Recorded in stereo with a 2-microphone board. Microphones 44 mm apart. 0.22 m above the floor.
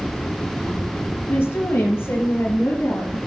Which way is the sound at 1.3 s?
65° left (ahead or behind).